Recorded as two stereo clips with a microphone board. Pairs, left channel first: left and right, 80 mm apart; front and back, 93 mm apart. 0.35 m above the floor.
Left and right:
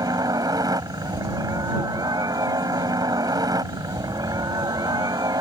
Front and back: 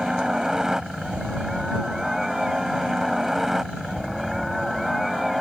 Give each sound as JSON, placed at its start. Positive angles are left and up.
{"t": 0.0, "sound": "a helicopter", "azimuth_deg": -100}